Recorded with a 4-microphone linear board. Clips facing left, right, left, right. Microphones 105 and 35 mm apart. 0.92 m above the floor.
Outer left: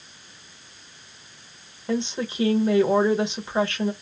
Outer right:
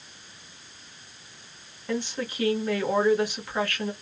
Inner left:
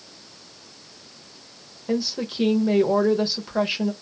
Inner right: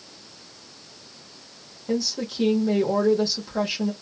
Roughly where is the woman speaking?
Left.